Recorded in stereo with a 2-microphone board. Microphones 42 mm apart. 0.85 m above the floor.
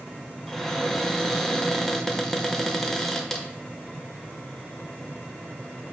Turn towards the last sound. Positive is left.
turn(degrees=10)  # may be behind; listen again after turning